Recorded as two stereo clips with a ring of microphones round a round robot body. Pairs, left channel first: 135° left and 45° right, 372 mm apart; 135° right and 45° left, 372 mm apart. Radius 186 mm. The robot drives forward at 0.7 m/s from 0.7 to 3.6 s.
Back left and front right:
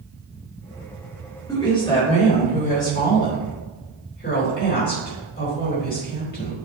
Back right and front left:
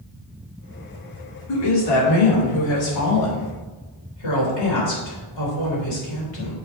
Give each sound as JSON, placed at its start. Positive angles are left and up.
{"t": 1.5, "sound": "a woman speaking", "azimuth_deg": -145, "distance_m": 2.0}